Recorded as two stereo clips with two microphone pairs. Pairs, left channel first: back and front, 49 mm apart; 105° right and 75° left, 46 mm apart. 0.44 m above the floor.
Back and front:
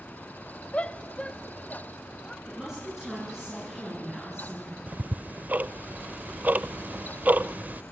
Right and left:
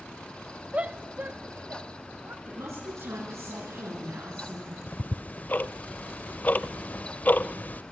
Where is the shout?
125° left, 1.0 m; by 2.4 s 105° left, 1.9 m.